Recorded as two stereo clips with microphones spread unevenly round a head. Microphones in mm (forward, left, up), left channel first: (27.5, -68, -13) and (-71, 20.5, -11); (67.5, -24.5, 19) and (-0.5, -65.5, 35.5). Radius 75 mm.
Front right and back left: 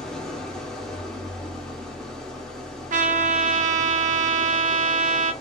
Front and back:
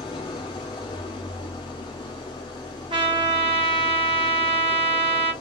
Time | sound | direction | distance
0.0 | an engine running | 45° left | 0.9 m
2.9 | a trumpet | 165° left | 0.8 m